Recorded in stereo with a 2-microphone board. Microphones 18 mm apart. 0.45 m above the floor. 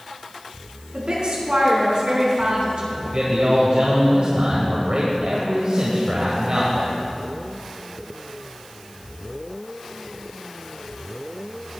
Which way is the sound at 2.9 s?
60° right (ahead or behind).